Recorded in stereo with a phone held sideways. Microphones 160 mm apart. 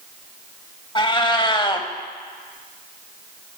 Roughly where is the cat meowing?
Left.